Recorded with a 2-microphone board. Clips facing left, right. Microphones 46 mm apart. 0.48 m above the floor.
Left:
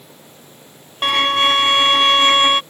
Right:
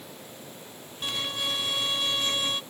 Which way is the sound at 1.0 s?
75° left (ahead or behind).